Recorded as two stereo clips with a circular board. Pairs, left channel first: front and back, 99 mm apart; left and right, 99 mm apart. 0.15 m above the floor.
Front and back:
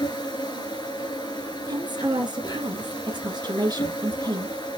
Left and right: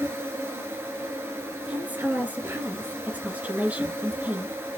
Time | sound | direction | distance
0.0 | an insect | 30° right | 2.5 m
1.7 | a woman speaking | 160° right | 2 m